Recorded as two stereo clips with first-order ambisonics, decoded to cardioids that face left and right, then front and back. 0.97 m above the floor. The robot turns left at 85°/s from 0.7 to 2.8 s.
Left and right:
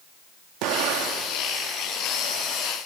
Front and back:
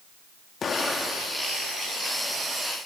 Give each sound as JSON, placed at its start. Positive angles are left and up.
{"t": 0.6, "sound": "an explosion", "azimuth_deg": -65, "distance_m": 1.0}